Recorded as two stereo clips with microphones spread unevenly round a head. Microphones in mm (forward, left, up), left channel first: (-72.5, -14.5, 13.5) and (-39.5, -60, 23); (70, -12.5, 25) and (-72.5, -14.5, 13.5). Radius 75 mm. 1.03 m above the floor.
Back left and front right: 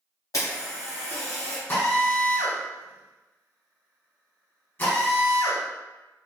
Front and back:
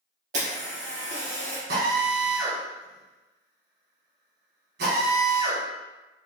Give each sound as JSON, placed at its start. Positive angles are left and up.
{"t": 0.3, "sound": "a camera shutter", "azimuth_deg": 140, "distance_m": 1.6}
{"t": 1.7, "sound": "a drill", "azimuth_deg": 175, "distance_m": 1.7}